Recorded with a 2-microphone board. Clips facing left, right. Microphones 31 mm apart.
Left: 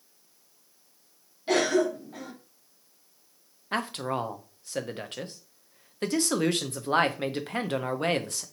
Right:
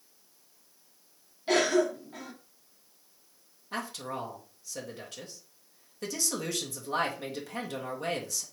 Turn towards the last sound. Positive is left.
turn(degrees=45)  # may be behind; listen again after turning